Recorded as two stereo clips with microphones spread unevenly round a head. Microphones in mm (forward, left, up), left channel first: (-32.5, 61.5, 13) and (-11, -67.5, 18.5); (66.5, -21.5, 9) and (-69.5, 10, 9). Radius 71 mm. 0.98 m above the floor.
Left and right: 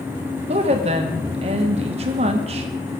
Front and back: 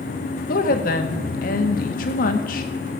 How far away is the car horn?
No car horn in this recording.